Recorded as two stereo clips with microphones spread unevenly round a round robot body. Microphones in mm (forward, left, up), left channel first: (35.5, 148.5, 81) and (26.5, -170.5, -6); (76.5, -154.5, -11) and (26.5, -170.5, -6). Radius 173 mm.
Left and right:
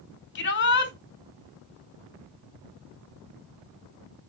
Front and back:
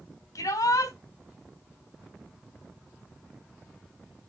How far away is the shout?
About 4 m.